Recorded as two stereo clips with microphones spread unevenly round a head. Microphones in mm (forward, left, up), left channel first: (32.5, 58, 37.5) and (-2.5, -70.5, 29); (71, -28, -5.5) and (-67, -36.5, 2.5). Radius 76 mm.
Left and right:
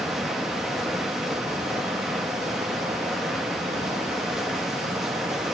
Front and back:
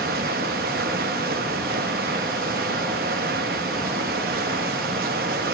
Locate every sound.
0.0 s running water: 165° left, 1.2 m